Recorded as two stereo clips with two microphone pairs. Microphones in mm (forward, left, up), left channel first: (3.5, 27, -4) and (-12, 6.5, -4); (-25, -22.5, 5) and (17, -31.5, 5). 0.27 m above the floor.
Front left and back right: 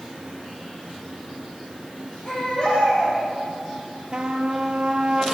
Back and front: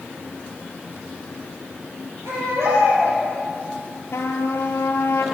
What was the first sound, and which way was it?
A baby crying, 10° right.